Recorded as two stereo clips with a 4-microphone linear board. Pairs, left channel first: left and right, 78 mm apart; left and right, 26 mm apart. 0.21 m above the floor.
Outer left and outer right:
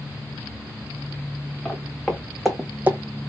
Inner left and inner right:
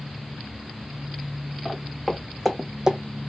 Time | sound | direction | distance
1.6 | footsteps | 15° left (ahead or behind) | 1.2 m